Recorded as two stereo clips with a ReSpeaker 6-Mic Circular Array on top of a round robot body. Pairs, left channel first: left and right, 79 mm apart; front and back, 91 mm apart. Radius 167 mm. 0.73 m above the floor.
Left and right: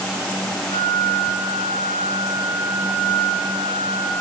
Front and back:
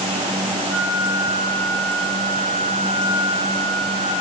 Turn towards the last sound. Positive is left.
turn(degrees=95)